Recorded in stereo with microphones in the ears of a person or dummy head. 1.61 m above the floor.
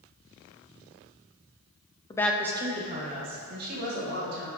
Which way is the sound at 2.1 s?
20° left (ahead or behind).